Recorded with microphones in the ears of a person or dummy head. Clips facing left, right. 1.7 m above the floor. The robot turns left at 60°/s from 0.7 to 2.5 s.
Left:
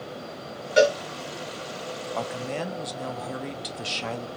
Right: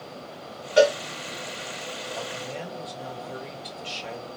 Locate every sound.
0.8 s a cowbell: 25° left (ahead or behind), 1.3 m; by 1.0 s 30° left (ahead or behind), 1.3 m
2.1 s a man speaking: 65° left (ahead or behind), 0.8 m